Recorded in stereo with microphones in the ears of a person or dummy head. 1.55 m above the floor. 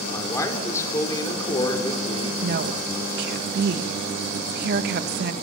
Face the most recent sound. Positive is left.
turn(degrees=-60)  # may be behind; listen again after turning